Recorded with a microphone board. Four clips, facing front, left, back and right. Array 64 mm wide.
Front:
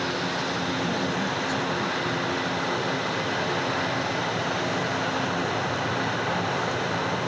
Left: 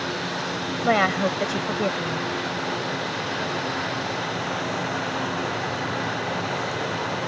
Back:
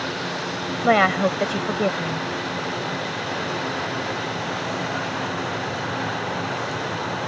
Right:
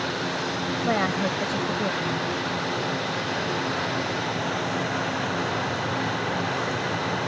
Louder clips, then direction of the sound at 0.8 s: Left 5 dB, back 9 dB; 160° left.